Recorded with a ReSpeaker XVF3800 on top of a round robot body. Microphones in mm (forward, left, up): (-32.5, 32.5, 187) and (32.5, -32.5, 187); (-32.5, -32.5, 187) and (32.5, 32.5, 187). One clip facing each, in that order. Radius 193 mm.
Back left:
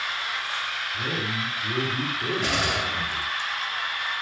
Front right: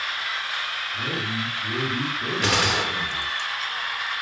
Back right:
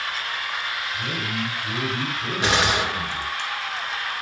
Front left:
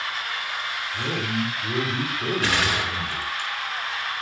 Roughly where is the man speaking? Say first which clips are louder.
Front right 1 dB, front left 2 dB; ahead left.